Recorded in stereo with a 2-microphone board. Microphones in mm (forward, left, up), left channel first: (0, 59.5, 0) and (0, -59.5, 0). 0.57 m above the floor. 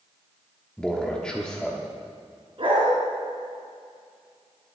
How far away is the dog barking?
About 3 m.